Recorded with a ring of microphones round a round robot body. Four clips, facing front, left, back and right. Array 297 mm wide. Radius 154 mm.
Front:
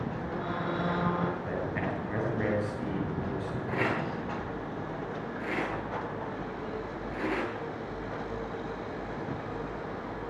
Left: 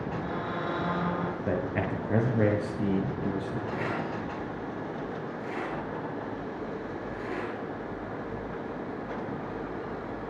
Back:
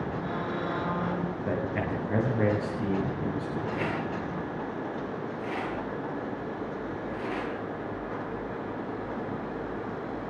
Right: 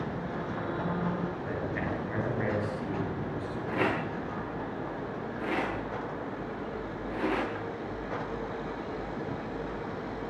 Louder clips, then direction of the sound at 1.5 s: Left 3 dB, back 3 dB; 120° left.